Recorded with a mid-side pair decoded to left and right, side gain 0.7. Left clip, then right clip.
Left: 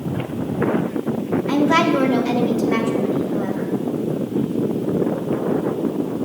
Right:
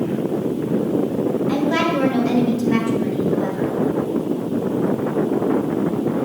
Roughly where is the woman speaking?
Left.